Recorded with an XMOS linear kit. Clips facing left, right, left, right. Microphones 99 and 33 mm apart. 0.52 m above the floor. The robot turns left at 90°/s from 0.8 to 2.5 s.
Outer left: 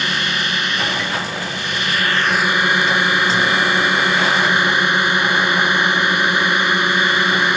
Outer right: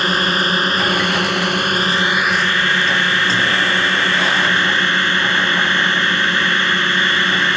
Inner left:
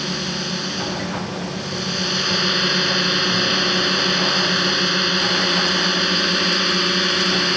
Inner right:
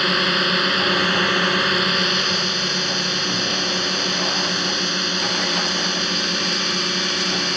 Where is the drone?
45° right; by 7.6 s 165° left.